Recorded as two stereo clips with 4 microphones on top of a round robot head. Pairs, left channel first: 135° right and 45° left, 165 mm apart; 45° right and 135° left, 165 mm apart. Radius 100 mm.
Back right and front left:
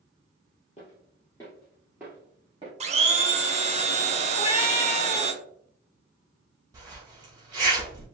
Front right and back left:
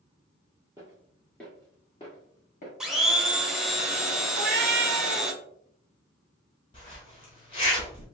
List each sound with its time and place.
0.8 s footsteps: 160° right, 1.0 m; by 2.7 s 15° right, 1.2 m
2.8 s a blender: 50° left, 0.7 m
4.3 s a cat meowing: 165° left, 0.6 m
6.7 s a zipper: 10° right, 0.7 m